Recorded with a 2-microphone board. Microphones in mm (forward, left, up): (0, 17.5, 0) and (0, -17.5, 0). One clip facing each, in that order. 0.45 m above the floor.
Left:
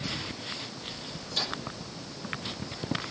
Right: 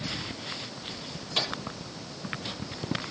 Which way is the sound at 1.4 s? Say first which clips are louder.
Right 3 dB; 65° right (ahead or behind).